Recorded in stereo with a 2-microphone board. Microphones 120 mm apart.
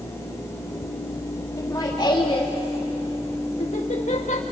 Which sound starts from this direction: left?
Laughter, at 1.6 s.